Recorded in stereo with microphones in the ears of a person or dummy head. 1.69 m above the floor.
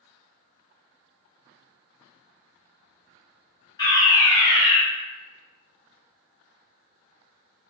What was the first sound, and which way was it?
A fire alarm, 10° left (ahead or behind).